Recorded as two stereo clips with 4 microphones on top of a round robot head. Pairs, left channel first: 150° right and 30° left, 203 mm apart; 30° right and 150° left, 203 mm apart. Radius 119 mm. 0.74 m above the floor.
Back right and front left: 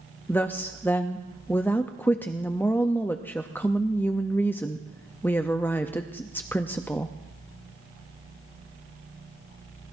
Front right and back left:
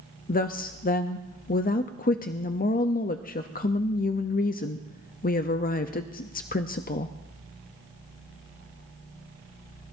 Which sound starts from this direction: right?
A woman speaking, at 0.3 s.